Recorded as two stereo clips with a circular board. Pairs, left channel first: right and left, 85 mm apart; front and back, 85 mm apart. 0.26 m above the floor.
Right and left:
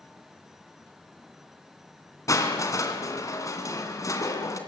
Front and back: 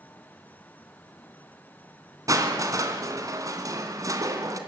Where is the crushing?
135° right, 2.5 m.